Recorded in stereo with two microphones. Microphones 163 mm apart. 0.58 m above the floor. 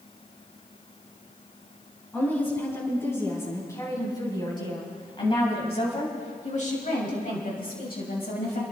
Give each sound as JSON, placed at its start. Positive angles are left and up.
{"t": 2.1, "sound": "a woman speaking", "side_deg": 10, "distance_m": 6.5}